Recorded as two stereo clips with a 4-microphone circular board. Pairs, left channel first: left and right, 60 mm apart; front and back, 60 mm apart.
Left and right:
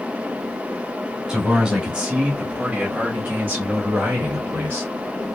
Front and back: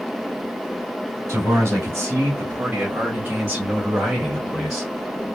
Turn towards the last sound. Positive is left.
turn(degrees=-75)